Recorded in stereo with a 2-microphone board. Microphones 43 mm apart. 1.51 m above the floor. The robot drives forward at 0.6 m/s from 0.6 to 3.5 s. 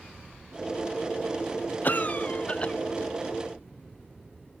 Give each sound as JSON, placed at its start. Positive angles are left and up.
{"t": 1.8, "sound": "a cough", "side_deg": 50, "distance_m": 0.6}